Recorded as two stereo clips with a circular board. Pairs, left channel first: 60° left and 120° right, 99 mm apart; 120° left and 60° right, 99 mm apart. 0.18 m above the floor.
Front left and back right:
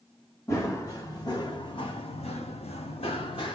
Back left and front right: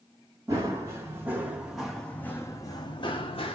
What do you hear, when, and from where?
0.5 s running footsteps: 5° right, 1.2 m; by 3.6 s 95° left, 0.9 m